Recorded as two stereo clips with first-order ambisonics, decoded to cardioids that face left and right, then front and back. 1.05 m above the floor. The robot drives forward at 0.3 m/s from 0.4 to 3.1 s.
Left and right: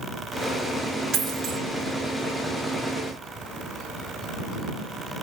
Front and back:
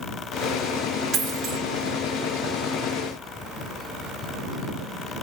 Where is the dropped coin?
130° right, 0.9 m; by 1.6 s 140° right, 1.0 m.